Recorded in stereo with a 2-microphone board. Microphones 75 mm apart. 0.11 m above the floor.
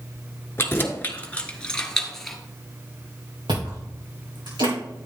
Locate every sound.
0.6 s keys jangling: 30° left (ahead or behind), 1.1 m; by 2.4 s centre (ahead or behind), 1.4 m
3.5 s chewing: 75° right (ahead or behind), 4.5 m